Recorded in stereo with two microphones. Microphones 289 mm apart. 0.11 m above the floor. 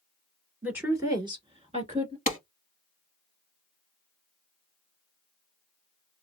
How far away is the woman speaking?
About 1.6 m.